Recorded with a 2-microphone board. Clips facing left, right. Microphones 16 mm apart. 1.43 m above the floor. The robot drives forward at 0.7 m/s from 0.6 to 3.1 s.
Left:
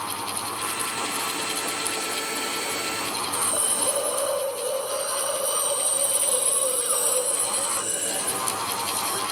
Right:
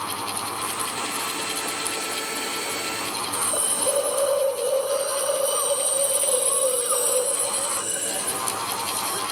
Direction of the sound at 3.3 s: 35° right (ahead or behind).